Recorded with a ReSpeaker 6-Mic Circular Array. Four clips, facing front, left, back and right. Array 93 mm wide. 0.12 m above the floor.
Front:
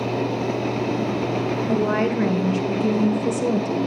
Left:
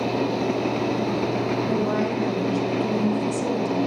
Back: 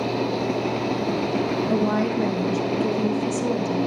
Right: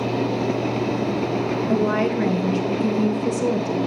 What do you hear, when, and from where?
1.7 s a woman speaking: 35° right, 2.5 m